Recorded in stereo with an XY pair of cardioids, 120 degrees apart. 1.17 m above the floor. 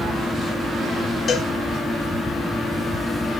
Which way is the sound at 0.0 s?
10° left.